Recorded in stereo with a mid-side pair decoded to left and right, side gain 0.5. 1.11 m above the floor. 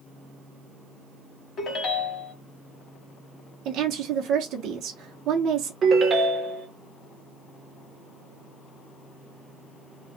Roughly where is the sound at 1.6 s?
Ahead left.